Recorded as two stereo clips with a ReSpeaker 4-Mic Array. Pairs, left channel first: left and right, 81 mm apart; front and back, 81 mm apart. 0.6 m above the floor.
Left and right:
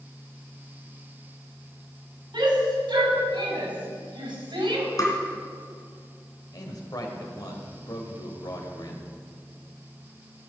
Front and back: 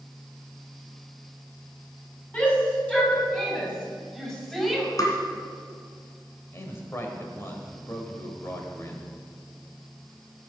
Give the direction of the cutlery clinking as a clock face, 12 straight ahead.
I don't hear cutlery clinking.